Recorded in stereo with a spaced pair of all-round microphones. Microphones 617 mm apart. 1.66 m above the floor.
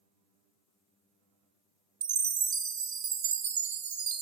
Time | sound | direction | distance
2.0 | a chime | 65° right (ahead or behind) | 0.8 m